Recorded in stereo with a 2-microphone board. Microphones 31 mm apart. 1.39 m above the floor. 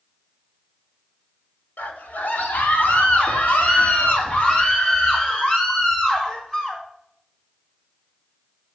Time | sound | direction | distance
1.8 | a scream | 80° left | 1.9 m